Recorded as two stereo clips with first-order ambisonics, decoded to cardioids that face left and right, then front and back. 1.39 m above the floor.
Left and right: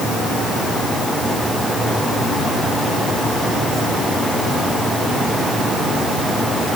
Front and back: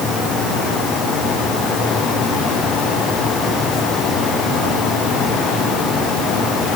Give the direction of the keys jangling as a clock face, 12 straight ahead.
I don't hear keys jangling.